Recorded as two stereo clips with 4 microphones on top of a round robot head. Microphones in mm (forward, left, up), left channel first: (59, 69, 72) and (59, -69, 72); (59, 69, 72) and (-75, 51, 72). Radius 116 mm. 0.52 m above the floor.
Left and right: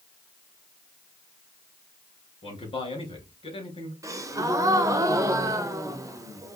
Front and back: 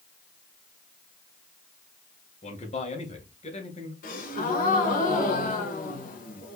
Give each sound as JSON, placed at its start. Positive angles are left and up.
{"t": 2.4, "sound": "a man speaking", "azimuth_deg": 40, "distance_m": 2.5}
{"t": 4.0, "sound": "a gasp", "azimuth_deg": -20, "distance_m": 0.8}